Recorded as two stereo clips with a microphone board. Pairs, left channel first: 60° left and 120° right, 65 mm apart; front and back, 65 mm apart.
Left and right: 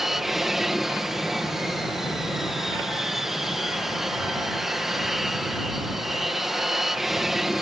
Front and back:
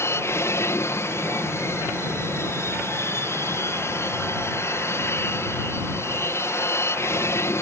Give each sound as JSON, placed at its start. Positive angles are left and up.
{"t": 0.0, "sound": "an aircraft", "azimuth_deg": -35}